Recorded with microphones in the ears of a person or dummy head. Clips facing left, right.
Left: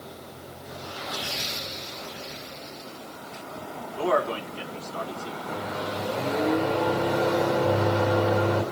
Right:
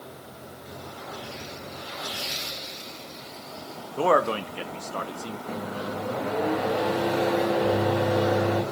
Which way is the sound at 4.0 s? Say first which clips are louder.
Right 3 dB; 55° right (ahead or behind).